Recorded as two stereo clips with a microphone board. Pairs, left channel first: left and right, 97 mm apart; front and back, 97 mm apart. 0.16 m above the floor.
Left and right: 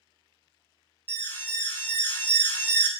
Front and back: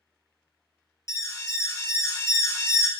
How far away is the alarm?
About 0.9 m.